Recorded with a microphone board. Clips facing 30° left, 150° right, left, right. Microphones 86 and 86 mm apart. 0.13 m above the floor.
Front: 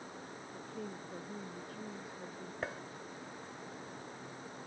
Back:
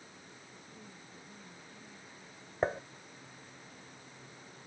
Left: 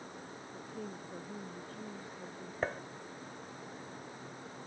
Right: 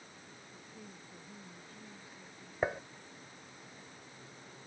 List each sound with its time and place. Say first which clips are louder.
0.5 s a woman speaking: front 12 dB, left 10 dB; 55° left; by 2.5 s 50° left
2.6 s dishes clattering: back 10 dB, right 2 dB; 160° right